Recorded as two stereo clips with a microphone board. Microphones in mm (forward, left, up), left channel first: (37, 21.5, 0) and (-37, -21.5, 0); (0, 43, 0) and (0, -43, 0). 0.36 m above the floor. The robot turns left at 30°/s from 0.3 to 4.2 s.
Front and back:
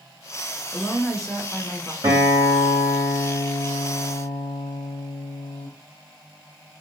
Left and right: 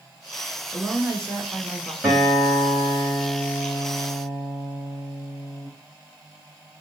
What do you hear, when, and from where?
0.7 s a woman speaking: 45° right, 0.9 m; by 1.9 s 80° right, 0.9 m
2.0 s a guitar: 170° right, 1.9 m; by 5.7 s 125° left, 1.9 m